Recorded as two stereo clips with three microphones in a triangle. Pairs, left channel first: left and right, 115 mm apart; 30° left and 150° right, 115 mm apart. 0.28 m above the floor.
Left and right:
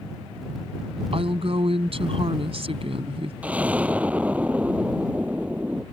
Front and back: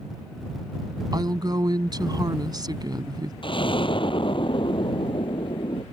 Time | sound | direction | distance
1.1 | a woman speaking | 105° right | ?
3.4 | an explosion | 15° right | ?